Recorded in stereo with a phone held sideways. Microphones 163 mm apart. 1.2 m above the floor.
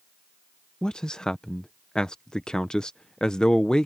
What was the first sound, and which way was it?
A man speaking, 5° left (ahead or behind).